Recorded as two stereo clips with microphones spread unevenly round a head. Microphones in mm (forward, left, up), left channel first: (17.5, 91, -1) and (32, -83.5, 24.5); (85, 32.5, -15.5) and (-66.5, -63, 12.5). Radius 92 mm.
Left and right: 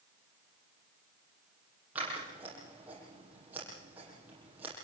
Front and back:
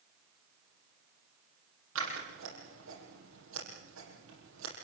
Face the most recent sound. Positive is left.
turn(degrees=-165)